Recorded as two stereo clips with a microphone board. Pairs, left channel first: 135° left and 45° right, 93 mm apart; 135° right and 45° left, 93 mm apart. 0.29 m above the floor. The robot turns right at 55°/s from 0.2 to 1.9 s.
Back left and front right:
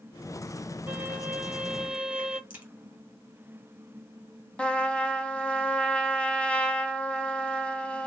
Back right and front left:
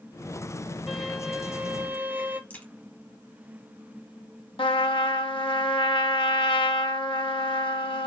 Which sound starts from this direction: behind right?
A trumpet, at 4.6 s.